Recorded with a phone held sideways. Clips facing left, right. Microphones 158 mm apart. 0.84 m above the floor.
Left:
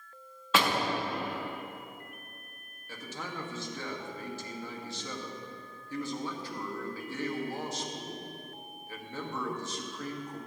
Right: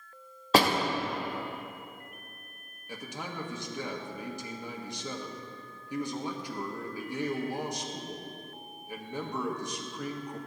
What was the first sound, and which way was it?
A door slam, 35° right (ahead or behind).